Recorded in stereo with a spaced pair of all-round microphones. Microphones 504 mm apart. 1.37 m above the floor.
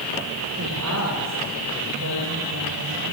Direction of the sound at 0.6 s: 30° right (ahead or behind).